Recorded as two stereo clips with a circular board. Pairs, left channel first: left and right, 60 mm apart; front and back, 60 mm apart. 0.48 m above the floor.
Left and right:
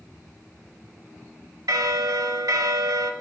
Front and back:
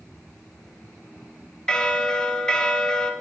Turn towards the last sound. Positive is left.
turn(degrees=-80)